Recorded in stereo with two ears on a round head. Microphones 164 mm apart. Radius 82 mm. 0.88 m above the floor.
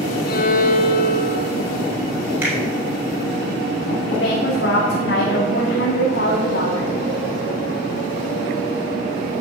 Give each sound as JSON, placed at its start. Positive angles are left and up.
{"t": 0.3, "sound": "a violin", "side_deg": 55, "distance_m": 1.3}
{"t": 2.4, "sound": "a finger snap", "side_deg": -10, "distance_m": 6.0}
{"t": 4.1, "sound": "a woman speaking", "side_deg": 65, "distance_m": 2.5}